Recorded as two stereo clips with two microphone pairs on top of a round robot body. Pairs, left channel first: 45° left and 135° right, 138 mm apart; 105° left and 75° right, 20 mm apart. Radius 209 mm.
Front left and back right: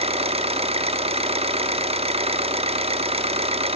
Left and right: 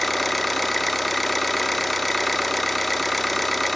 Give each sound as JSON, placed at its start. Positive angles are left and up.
{"t": 0.0, "sound": "an engine running", "azimuth_deg": -165, "distance_m": 0.7}